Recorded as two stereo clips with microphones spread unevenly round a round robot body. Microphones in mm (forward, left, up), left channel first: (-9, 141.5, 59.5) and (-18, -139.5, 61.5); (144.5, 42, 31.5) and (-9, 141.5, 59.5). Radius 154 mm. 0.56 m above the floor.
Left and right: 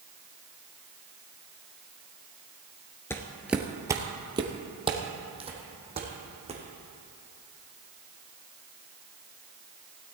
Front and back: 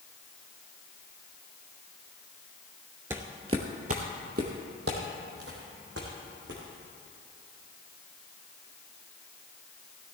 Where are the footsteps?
155° left, 0.5 m; by 6.6 s 160° right, 2.5 m.